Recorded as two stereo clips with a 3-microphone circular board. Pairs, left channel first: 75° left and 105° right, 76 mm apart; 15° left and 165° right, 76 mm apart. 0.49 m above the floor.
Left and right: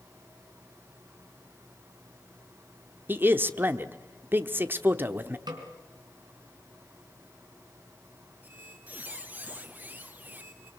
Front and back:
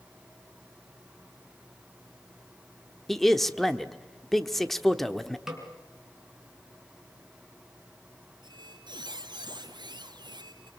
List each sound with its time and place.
3.1 s a man speaking: 70° right, 0.9 m
5.5 s a snare drum: 80° right, 4 m
8.4 s a squeak: 170° right, 1.7 m